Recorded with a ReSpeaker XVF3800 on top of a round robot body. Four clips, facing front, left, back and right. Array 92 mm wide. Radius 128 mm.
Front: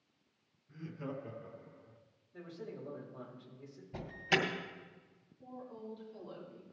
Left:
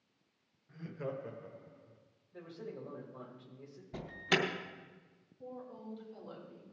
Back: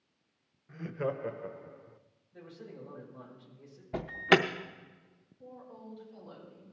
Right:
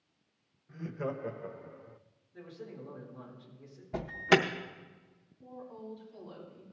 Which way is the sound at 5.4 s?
100° left.